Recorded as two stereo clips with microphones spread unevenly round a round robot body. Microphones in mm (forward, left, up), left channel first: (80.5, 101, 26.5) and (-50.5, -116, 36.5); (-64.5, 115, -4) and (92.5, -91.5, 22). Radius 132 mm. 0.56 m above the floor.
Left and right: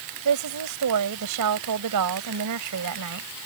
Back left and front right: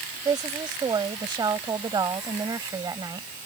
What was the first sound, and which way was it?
A woman speaking, 130° right.